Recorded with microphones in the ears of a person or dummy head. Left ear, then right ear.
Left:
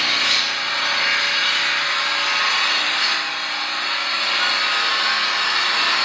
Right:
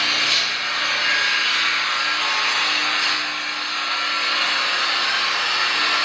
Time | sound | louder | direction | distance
0.0 | an engine running | left 1 dB | 35° left (ahead or behind) | 2.5 m